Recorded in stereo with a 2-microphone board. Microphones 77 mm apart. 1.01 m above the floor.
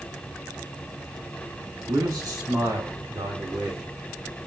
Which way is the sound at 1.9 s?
60° right (ahead or behind).